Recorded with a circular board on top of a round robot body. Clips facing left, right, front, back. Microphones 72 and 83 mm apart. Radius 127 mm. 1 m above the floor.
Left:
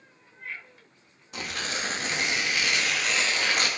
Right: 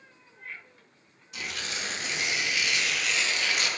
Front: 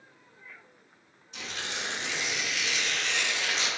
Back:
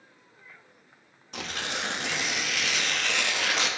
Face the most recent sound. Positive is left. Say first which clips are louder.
# left 3 dB, back 4 dB
turn(degrees=140)